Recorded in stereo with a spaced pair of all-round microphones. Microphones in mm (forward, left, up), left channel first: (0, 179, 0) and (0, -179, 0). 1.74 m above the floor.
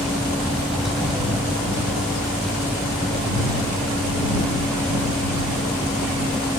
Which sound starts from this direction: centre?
A vehicle, at 0.0 s.